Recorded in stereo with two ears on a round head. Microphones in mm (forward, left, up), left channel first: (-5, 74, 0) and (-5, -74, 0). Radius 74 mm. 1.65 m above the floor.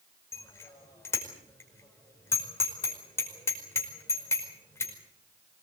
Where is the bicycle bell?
15° left (ahead or behind), 5 m.